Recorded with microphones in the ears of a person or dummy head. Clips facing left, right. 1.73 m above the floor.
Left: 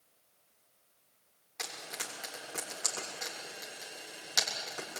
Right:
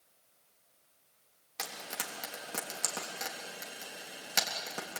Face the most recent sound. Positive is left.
turn(degrees=-55)  # may be behind; listen again after turning